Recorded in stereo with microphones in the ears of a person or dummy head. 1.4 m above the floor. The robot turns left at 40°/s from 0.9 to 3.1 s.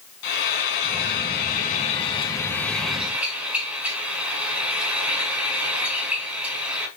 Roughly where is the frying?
Left.